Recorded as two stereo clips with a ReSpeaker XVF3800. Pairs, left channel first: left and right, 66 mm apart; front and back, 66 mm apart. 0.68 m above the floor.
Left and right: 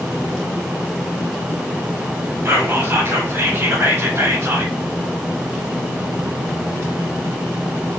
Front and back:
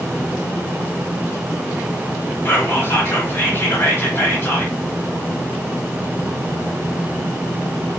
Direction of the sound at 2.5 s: 45° right.